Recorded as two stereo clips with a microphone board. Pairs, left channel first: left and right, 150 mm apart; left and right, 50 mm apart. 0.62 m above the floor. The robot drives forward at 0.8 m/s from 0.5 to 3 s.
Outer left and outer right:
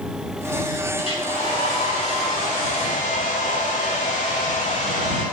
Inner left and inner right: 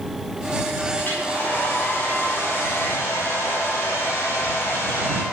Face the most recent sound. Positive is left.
turn(degrees=60)  # may be behind; listen again after turning